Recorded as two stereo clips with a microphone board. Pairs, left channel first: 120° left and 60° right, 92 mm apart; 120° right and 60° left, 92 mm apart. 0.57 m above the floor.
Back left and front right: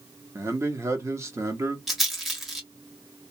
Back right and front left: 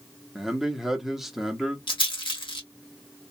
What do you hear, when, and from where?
0.3 s a man speaking: 25° right, 0.7 m
1.9 s a rattle: 150° right, 1.2 m